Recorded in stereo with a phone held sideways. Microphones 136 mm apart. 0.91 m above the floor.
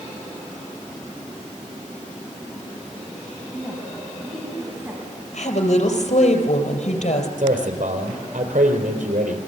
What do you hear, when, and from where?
3.5 s a woman speaking: 5° left (ahead or behind), 5 m; by 6.2 s 20° right (ahead or behind), 8 m
5.3 s a woman speaking: 65° left (ahead or behind), 4.5 m
7.4 s a man speaking: 75° right (ahead or behind), 4 m